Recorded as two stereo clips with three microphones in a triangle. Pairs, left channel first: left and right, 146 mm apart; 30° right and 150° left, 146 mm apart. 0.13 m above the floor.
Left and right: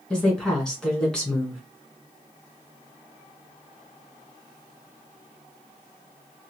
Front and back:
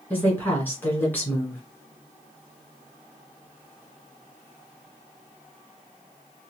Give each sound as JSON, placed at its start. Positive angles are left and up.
{"t": 0.1, "sound": "a woman speaking", "azimuth_deg": 15, "distance_m": 1.5}